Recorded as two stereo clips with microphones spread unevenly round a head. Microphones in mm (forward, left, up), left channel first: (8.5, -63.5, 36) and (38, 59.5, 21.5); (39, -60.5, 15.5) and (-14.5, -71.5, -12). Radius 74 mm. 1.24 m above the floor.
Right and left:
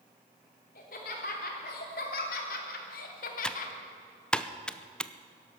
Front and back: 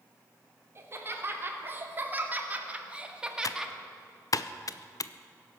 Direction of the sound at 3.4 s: 20° right.